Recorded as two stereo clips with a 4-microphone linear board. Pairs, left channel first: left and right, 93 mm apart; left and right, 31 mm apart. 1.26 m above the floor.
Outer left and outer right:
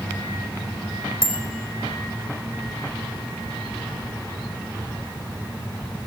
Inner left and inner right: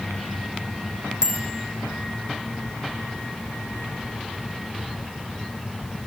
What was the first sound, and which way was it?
A bicycle bell, 25° right (ahead or behind).